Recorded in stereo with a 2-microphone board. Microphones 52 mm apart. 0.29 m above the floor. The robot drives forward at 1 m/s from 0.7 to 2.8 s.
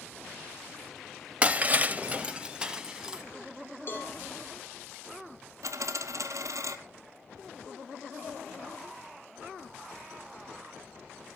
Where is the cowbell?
40° left (ahead or behind), 5.5 m.